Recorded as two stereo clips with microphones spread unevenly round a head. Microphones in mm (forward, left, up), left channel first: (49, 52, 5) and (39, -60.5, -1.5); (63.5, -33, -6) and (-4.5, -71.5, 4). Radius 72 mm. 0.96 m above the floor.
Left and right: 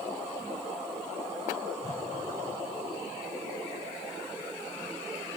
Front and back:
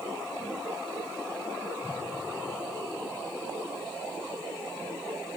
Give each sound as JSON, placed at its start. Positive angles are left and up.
{"t": 1.8, "sound": "a whoosh", "azimuth_deg": 70, "distance_m": 6.5}